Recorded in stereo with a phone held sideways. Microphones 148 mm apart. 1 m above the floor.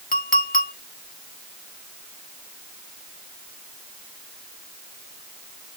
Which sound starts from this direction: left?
A clink, at 0.1 s.